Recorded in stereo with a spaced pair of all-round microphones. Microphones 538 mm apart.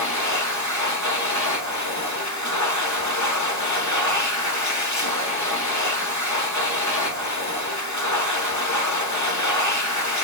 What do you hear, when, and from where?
0.0 s a machine running: 35° left (ahead or behind), 0.8 m